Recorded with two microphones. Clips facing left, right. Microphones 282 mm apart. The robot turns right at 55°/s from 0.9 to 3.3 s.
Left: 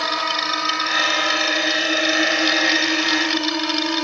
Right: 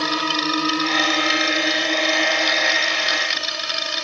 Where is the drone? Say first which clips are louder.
Right 6 dB; 40° right (ahead or behind); by 4.0 s 70° left (ahead or behind).